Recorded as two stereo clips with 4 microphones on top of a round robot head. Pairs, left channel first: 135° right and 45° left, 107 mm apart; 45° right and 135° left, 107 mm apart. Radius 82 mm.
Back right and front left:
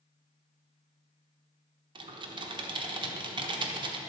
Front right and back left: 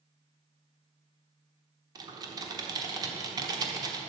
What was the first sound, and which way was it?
Typing on a keyboard, 85° left.